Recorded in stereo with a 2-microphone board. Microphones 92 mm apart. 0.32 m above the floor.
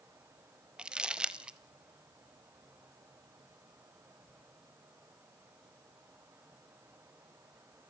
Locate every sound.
0.8 s crumpling: 10° right (ahead or behind), 1.0 m